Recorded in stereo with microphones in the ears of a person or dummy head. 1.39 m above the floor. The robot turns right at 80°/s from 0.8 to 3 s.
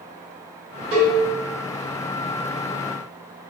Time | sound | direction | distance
0.9 | a cowbell | 60° right (ahead or behind) | 1.9 m